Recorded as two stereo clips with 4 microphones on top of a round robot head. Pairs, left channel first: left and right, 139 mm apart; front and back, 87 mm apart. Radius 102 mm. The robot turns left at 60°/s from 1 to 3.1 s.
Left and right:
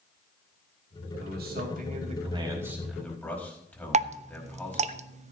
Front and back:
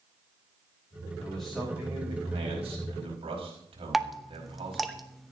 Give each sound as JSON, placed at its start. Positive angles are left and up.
{"t": 1.2, "sound": "a man speaking", "azimuth_deg": -75, "distance_m": 5.0}
{"t": 3.9, "sound": "dripping", "azimuth_deg": -95, "distance_m": 0.7}